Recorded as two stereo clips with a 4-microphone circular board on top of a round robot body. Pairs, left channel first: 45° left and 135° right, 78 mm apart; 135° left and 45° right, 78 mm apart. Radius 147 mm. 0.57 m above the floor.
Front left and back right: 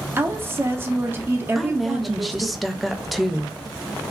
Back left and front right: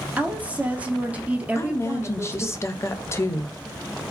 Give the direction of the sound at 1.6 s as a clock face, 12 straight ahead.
7 o'clock.